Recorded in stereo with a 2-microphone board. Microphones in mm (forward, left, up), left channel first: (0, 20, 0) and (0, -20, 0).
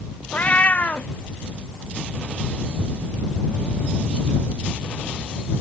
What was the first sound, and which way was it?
A cat meowing, 35° left (ahead or behind).